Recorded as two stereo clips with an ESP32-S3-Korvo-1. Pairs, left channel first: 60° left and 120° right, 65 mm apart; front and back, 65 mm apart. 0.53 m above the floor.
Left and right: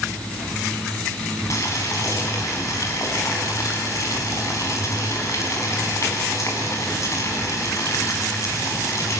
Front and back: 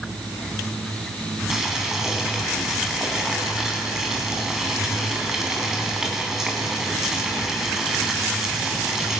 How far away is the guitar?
I don't hear a guitar.